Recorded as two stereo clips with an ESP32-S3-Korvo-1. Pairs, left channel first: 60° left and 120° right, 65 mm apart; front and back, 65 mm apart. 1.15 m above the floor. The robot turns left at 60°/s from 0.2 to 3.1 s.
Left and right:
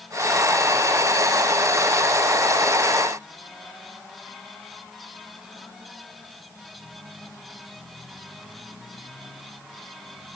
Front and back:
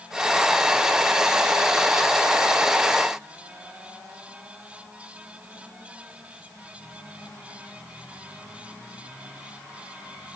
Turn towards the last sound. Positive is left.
No sound to turn to.